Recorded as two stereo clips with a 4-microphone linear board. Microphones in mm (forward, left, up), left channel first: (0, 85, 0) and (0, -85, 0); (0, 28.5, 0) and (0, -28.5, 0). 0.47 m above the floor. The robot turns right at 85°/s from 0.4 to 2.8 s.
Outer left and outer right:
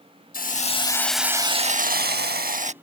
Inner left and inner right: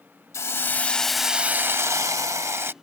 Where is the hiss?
115° left; by 2.7 s 45° right.